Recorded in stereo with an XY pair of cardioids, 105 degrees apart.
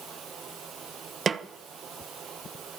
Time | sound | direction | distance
1.3 | a snare drum | 35° right | 1.1 m